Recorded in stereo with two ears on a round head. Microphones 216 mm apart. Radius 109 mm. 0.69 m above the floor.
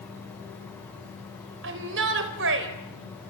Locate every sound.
1.6 s a shout: 55° right (ahead or behind), 4 m